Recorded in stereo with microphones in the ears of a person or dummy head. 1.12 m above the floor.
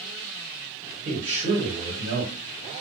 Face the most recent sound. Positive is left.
turn(degrees=-40)  # may be behind; listen again after turning